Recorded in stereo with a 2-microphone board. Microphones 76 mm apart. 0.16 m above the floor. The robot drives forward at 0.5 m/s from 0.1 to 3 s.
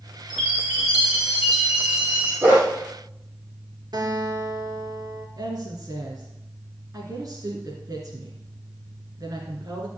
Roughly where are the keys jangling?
No keys jangling in this recording.